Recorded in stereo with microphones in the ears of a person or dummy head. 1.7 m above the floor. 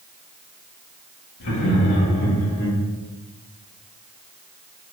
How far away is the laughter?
About 2.5 m.